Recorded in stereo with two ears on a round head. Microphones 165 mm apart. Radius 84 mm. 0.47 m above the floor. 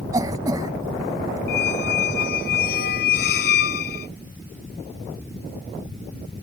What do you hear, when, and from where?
0.1 s a cough: 20° right (ahead or behind)
1.5 s a squeak: 55° left (ahead or behind)